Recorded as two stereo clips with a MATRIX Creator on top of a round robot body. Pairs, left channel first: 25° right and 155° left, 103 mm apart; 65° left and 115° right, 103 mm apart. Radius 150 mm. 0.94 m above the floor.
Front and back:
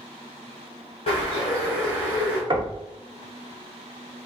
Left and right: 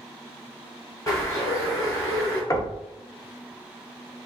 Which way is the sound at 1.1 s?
5° left.